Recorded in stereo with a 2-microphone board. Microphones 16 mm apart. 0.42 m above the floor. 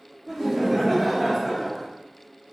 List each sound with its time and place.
0.3 s laughter: 20° right (ahead or behind), 1.8 m; by 1.9 s 10° left (ahead or behind), 1.4 m